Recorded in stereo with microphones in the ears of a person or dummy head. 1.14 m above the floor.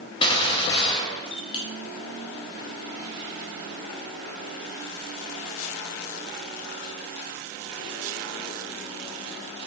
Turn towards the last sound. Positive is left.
turn(degrees=25)  # may be behind; listen again after turning